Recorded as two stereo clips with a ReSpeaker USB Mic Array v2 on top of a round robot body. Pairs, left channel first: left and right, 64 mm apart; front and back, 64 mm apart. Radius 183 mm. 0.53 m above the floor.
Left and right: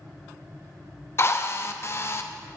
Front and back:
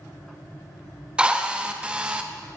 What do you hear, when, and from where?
1.2 s a drill: 110° left, 1.4 m